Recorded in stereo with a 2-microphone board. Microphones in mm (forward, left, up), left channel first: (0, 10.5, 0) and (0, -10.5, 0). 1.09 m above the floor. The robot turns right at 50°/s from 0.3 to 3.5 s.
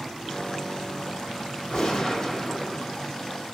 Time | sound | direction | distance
1.7 | a gunshot | 130° left | 1.7 m